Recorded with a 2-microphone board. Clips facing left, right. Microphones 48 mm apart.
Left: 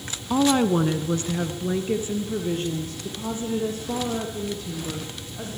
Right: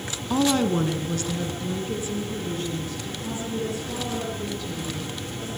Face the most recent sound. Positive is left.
turn(degrees=45)  # may be behind; listen again after turning